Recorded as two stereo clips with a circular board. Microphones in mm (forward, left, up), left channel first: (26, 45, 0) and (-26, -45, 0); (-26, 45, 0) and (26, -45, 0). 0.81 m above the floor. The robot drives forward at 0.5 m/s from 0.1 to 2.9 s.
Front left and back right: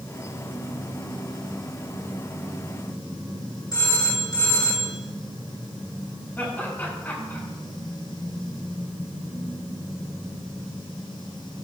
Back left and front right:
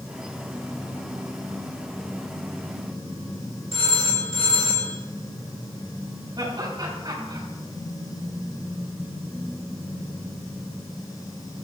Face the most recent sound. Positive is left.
turn(degrees=-10)